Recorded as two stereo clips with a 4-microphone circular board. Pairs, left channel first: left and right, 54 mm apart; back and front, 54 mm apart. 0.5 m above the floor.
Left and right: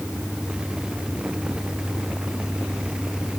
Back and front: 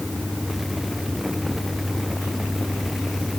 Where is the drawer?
I don't hear a drawer.